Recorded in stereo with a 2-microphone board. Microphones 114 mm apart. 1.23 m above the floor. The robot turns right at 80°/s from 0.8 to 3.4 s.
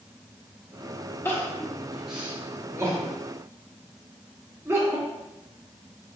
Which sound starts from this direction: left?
Crying, at 1.2 s.